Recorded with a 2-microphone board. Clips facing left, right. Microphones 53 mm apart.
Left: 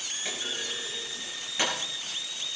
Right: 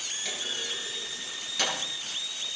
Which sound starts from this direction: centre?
A clunk, at 0.2 s.